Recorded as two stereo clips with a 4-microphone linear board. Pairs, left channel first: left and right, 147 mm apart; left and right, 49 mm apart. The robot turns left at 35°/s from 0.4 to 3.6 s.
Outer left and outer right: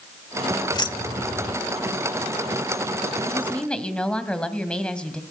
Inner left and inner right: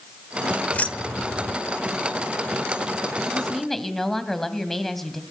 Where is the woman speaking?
20° left (ahead or behind), 2 m; by 5.2 s 5° left (ahead or behind), 2 m.